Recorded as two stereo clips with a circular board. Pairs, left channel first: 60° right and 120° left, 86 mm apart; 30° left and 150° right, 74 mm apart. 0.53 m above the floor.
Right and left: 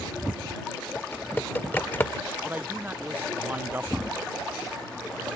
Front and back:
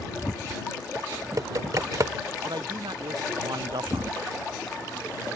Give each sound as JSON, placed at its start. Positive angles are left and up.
{"t": 0.9, "sound": "typing on a keyboard", "azimuth_deg": -120}
{"t": 2.5, "sound": "a man speaking", "azimuth_deg": -170}